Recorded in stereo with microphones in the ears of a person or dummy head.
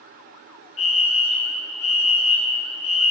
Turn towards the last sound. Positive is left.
turn(degrees=40)  # may be behind; listen again after turning